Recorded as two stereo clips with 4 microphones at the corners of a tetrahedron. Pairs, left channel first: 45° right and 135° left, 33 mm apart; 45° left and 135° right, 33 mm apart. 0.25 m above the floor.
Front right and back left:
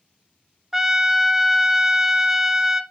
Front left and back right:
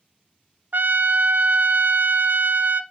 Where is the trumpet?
145° right, 0.6 m.